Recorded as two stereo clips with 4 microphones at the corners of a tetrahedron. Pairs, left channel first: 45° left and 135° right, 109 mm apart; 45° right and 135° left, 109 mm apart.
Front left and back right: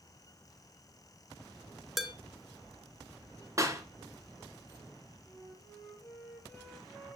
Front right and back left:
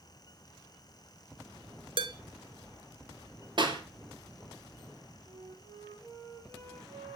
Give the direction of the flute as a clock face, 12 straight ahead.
8 o'clock.